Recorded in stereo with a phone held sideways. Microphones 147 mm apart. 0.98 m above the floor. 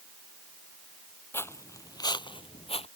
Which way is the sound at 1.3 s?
15° left (ahead or behind).